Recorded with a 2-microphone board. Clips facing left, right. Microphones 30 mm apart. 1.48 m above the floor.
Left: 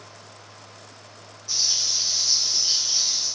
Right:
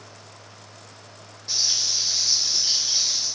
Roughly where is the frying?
Right.